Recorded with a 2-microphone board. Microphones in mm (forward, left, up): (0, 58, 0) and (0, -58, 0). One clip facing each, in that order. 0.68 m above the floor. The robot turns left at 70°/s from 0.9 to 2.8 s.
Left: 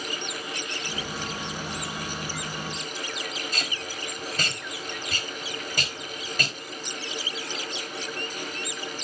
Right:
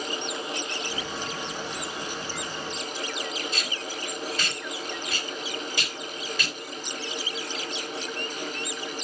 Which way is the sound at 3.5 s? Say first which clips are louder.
Right 1 dB; 45° left (ahead or behind).